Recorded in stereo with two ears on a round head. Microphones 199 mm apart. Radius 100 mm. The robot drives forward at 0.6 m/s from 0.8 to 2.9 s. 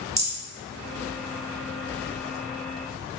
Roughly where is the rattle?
Centre.